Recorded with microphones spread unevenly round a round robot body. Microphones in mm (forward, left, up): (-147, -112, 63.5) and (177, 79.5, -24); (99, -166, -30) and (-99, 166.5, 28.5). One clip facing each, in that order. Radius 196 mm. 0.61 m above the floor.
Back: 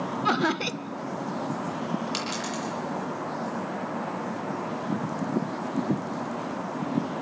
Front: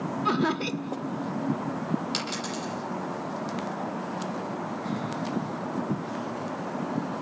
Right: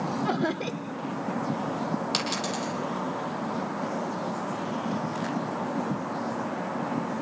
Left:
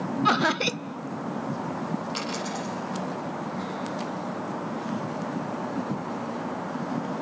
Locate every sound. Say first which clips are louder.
0.2 s laughter: front 1 dB, even; 110° left, 0.6 m
2.1 s a dropped coin: back 1 dB, right 1 dB; 50° right, 9.5 m